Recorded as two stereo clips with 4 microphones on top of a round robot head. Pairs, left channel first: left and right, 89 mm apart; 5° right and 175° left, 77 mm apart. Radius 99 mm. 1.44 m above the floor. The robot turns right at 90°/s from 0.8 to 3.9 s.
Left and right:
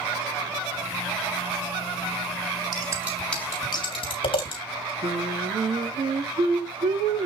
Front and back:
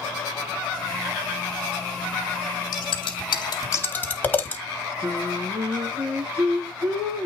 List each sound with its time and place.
2.7 s scissors: 45° right, 3 m; by 4.6 s 60° left, 3 m
5.0 s singing: 120° right, 4 m